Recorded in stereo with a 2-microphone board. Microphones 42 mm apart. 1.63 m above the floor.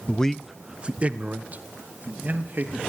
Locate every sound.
0.1 s a man speaking: 30° left (ahead or behind), 0.6 m; by 2.8 s 50° right (ahead or behind), 3 m